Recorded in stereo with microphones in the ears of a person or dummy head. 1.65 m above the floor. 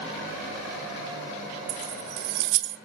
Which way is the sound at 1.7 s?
60° right (ahead or behind).